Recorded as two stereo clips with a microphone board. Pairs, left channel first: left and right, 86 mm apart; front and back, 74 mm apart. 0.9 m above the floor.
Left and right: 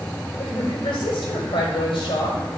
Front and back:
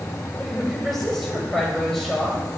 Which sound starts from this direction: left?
A woman speaking, at 0.4 s.